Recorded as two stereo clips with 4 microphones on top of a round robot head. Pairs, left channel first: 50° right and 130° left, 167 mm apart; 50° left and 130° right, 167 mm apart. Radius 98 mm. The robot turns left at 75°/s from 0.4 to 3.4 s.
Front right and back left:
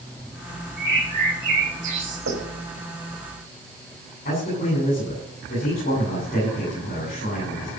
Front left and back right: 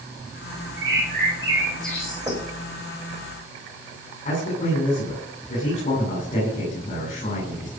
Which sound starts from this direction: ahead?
A man speaking, at 4.2 s.